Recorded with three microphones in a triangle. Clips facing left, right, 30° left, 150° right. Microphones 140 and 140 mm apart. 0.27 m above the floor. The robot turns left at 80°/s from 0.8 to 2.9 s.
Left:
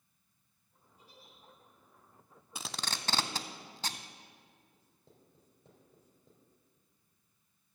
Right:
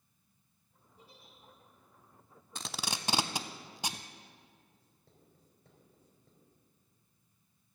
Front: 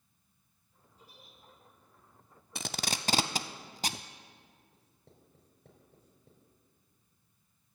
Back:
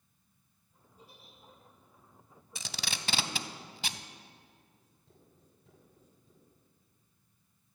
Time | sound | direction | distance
1.0 | a giggle | 110° right | 5 m
2.5 | tape being pulled | 10° left | 0.5 m
4.7 | writing | 25° left | 3.5 m